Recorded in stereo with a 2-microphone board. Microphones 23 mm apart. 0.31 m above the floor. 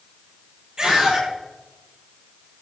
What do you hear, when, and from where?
0.8 s a scream: 35° right (ahead or behind), 8.5 m